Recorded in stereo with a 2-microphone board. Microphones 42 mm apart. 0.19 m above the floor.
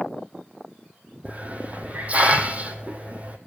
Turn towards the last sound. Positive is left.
turn(degrees=-35)  # may be behind; listen again after turning